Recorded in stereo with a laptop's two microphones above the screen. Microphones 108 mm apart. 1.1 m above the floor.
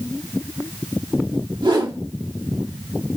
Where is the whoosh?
45° right (ahead or behind), 1.8 m.